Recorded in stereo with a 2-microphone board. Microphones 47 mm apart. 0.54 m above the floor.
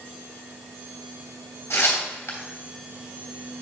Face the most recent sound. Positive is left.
turn(degrees=70)  # may be behind; listen again after turning